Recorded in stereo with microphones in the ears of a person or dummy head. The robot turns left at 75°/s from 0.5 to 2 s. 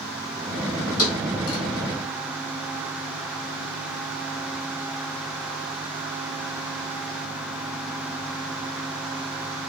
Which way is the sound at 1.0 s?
50° left (ahead or behind).